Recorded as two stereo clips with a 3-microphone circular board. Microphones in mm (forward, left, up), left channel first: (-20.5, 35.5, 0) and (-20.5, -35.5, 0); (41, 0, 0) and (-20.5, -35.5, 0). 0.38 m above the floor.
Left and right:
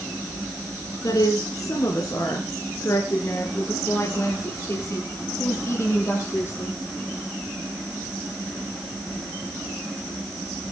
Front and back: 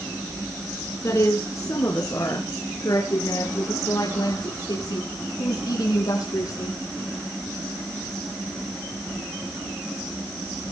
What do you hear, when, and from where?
1.0 s a woman speaking: 70° left, 3.5 m; by 6.8 s 35° left, 9.5 m